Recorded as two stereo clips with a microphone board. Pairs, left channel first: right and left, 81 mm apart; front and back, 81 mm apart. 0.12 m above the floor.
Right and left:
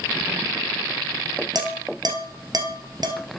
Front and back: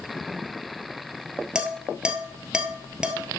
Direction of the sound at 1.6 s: 105° left.